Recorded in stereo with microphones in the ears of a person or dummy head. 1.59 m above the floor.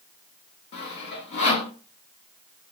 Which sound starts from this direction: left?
Sawing, at 0.7 s.